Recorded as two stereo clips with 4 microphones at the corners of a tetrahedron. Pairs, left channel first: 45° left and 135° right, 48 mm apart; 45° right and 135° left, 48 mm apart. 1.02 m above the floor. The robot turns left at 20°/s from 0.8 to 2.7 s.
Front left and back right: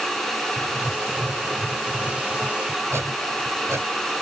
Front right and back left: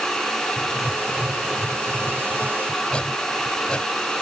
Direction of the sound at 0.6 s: 75° right.